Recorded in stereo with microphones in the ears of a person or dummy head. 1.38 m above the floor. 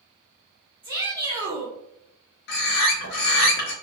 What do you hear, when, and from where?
0.8 s a shout: 15° right (ahead or behind), 1.2 m
2.5 s a bird: 60° left (ahead or behind), 0.9 m